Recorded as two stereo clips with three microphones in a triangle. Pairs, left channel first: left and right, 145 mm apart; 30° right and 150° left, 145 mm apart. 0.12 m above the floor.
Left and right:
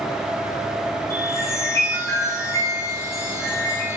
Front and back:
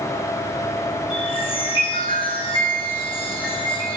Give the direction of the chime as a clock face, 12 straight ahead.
11 o'clock.